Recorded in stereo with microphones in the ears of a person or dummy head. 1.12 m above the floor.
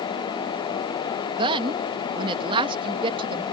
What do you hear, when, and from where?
1.4 s a woman speaking: 30° right (ahead or behind)